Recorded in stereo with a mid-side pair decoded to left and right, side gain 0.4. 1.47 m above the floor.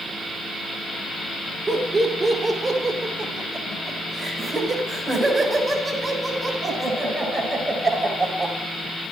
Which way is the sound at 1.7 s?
45° right.